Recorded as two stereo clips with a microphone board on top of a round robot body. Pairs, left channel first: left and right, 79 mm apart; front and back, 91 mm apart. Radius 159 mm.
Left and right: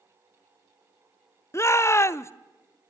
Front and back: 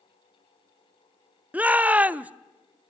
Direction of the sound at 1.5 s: 115° left.